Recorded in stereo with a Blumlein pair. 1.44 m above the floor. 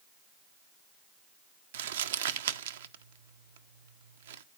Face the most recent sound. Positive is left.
turn(degrees=-60)